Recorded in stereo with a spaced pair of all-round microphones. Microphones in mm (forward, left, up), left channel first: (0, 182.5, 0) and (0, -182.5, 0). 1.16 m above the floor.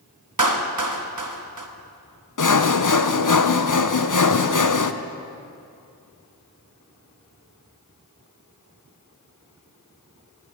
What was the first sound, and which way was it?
A clap, 55° right (ahead or behind).